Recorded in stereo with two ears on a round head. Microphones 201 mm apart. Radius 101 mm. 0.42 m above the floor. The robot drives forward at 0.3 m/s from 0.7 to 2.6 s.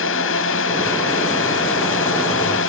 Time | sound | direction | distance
0.0 | a drone | 60° left (ahead or behind) | ?